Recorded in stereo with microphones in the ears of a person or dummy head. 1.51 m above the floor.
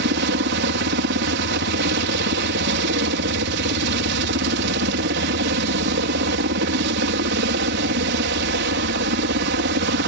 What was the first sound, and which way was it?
A helicopter, 60° right (ahead or behind).